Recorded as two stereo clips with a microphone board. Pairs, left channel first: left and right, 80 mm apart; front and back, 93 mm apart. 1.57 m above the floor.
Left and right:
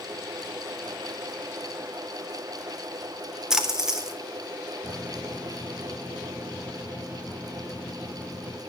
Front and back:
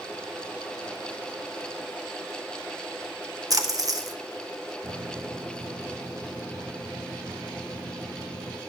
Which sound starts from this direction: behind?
A splash, at 3.5 s.